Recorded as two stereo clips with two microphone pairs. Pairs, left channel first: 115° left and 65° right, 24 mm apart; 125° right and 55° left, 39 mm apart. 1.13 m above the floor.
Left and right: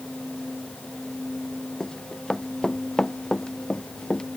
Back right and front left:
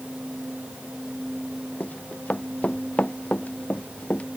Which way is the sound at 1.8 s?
175° right.